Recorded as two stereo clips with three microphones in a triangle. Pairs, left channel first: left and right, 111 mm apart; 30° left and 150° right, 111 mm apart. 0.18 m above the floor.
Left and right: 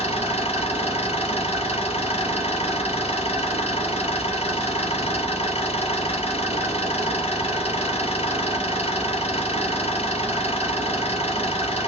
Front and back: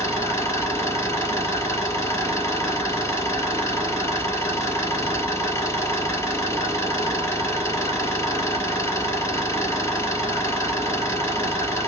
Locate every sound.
0.0 s an engine running: 95° left, 2.0 m